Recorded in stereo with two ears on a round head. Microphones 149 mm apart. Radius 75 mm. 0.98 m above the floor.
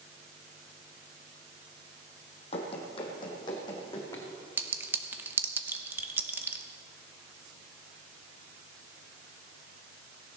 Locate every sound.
2.5 s running footsteps: 40° left (ahead or behind), 2.5 m; by 4.2 s 25° left (ahead or behind), 4 m
4.6 s a clink: 15° right (ahead or behind), 0.8 m